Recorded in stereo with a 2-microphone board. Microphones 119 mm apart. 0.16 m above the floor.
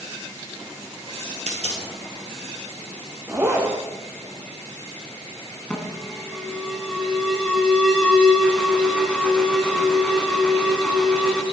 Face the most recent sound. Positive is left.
turn(degrees=10)  # may be behind; listen again after turning